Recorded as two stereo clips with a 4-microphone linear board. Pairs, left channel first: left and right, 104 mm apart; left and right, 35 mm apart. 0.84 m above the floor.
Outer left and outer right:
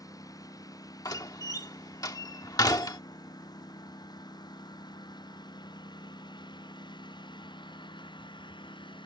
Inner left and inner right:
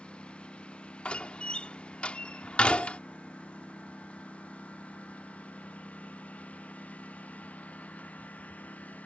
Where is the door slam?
40° left (ahead or behind).